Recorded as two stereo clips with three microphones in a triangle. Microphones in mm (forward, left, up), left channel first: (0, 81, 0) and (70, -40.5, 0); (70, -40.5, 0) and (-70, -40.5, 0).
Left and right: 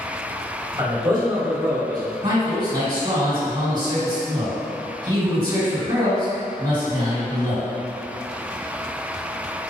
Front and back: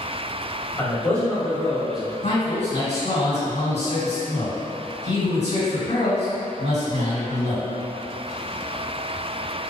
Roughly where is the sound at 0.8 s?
Ahead right.